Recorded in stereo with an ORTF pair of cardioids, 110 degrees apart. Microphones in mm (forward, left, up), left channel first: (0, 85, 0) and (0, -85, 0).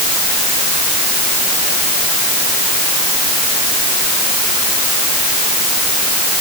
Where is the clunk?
I don't hear a clunk.